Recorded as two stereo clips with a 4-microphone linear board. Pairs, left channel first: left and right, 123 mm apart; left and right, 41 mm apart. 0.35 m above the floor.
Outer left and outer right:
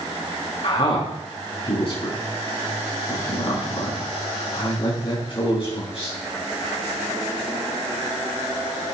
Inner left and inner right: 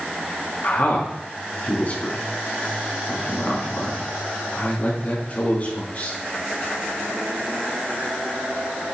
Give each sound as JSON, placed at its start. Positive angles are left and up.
{"t": 0.6, "sound": "a man speaking", "side_deg": 45, "distance_m": 3.5}